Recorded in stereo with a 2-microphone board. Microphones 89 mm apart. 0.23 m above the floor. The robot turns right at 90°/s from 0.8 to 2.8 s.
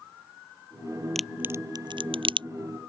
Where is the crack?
5° left (ahead or behind); by 2.5 s 65° right (ahead or behind).